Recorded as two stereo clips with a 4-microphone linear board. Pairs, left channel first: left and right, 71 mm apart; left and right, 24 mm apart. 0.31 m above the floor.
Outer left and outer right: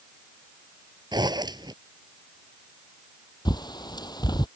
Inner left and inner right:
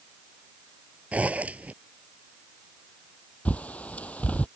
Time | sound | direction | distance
1.1 | a zipper | 75° right (ahead or behind) | ?
3.5 | a bird | 75° left (ahead or behind) | ?